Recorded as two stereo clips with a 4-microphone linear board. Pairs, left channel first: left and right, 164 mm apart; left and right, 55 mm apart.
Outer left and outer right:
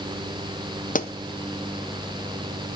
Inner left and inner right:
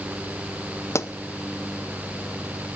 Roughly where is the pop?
Left.